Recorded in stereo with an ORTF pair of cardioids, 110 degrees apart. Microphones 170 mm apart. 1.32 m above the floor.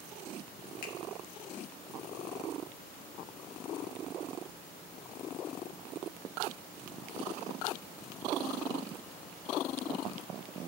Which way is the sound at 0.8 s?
60° left.